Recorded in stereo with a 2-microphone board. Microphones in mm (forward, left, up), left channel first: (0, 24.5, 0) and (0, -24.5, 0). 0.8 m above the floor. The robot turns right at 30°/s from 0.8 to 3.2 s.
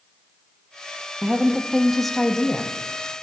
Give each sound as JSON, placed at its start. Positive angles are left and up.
{"t": 1.2, "sound": "a woman speaking", "azimuth_deg": -25, "distance_m": 0.6}